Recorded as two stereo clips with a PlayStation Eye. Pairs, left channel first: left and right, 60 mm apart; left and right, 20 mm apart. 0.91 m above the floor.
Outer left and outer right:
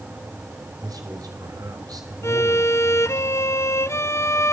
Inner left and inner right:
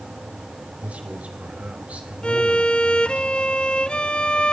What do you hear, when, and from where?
0.8 s a man speaking: 80° right, 4.5 m
2.2 s a violin: 45° left (ahead or behind), 0.8 m